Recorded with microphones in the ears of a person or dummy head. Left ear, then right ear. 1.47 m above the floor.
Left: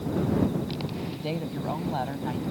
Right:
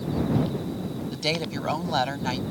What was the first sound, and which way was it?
A woman speaking, 65° right (ahead or behind).